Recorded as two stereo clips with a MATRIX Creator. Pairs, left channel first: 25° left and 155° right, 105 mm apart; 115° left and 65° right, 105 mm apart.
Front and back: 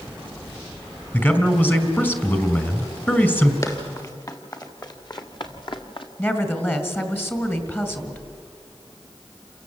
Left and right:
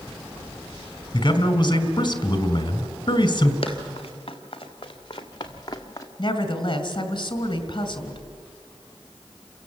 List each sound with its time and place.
1.1 s a man speaking: 90° left, 2 m
3.6 s running footsteps: 80° left, 4 m; by 6.1 s 55° left, 2.5 m
6.2 s a woman speaking: 85° left, 2 m